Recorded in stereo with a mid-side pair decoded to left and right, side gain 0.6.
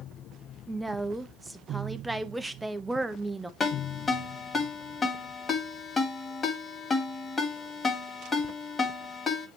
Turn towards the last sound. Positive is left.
turn(degrees=25)